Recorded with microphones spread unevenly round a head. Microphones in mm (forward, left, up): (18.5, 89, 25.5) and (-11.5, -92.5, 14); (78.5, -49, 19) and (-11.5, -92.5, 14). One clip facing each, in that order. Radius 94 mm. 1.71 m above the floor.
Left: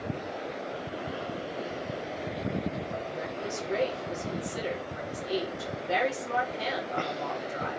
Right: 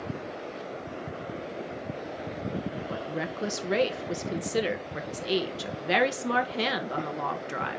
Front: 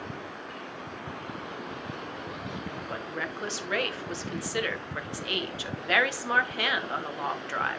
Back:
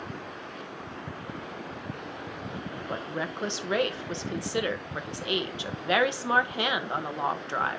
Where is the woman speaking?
85° right, 1.9 m.